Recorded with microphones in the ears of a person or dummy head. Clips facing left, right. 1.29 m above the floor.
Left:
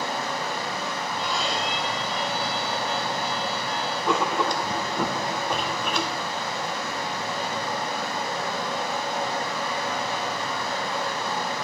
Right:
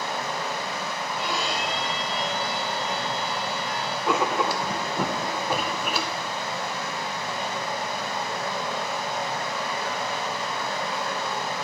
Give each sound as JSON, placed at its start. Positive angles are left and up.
{"t": 0.0, "sound": "running water", "side_deg": 30, "distance_m": 6.0}
{"t": 1.2, "sound": "a violin", "side_deg": -10, "distance_m": 2.5}
{"t": 4.1, "sound": "writing", "side_deg": -5, "distance_m": 0.6}